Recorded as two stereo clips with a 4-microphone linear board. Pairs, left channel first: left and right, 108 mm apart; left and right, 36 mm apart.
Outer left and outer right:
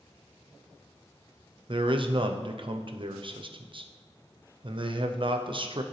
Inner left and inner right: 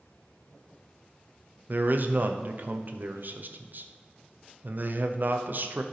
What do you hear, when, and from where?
1.7 s a man speaking: 50° right (ahead or behind), 0.7 m